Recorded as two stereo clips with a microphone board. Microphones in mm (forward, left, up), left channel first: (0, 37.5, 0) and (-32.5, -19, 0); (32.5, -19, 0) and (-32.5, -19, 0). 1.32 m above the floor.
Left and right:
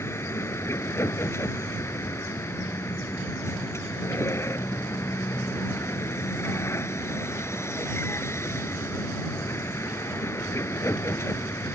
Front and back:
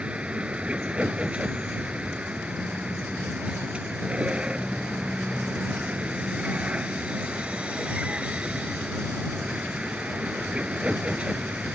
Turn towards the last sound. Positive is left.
turn(degrees=105)